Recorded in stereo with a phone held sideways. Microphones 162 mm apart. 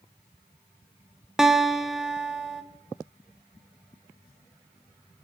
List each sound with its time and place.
1.4 s a guitar: centre (ahead or behind), 0.5 m